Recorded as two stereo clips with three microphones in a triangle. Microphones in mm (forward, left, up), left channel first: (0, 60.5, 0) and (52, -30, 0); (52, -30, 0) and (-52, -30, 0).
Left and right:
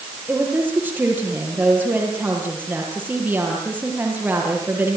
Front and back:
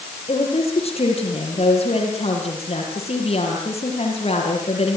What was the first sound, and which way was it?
A woman speaking, 15° left.